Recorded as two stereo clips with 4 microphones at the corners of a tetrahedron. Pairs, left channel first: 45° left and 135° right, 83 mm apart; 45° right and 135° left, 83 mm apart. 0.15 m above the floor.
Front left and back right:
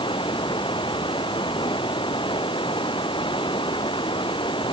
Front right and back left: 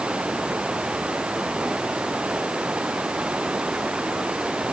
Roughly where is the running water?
Ahead left.